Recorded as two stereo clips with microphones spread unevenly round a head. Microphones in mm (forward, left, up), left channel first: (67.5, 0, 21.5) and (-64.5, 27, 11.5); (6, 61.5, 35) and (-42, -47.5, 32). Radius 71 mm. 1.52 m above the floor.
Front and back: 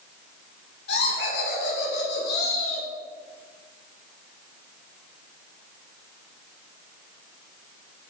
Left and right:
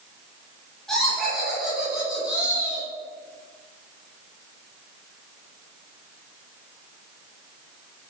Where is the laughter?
20° right, 2 m; by 2.9 s 35° right, 3.5 m.